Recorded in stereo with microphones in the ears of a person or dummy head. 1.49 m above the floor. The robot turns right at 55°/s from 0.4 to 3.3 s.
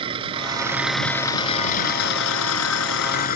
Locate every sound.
0.0 s an engine running: 30° right; by 3.4 s 130° left